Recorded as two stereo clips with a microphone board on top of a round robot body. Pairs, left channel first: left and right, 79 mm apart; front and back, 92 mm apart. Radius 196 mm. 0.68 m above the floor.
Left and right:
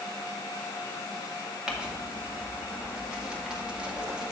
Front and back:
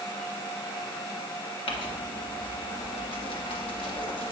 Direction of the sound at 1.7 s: 10° right.